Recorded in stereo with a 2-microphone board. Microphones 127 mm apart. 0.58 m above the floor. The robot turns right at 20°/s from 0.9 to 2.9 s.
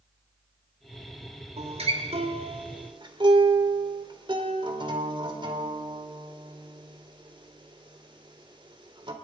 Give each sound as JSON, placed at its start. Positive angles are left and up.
{"t": 1.6, "sound": "a guitar", "side_deg": -60, "distance_m": 2.0}